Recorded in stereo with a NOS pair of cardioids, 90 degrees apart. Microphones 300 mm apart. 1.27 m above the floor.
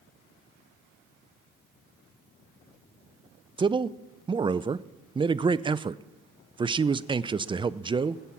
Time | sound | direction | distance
3.6 | a man speaking | 20° right | 0.5 m